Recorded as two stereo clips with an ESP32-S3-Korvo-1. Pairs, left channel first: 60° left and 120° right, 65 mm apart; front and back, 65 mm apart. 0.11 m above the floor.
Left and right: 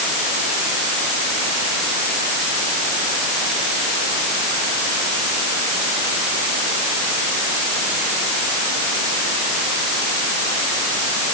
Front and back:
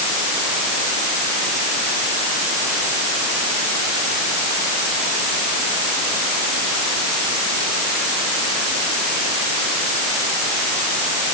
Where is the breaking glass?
I don't hear breaking glass.